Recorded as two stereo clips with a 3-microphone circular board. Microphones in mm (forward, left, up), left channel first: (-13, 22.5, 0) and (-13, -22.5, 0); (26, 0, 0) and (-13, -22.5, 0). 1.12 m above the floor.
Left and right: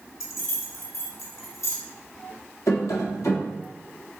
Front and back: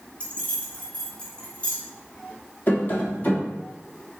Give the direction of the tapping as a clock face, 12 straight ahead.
9 o'clock.